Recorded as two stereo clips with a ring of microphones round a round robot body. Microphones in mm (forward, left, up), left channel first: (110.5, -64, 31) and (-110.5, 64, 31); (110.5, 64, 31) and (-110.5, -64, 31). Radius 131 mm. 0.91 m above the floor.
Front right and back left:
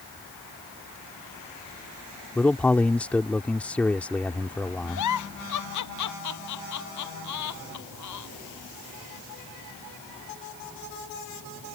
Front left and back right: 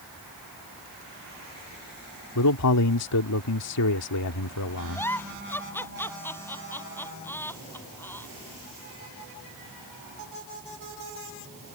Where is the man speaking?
55° left.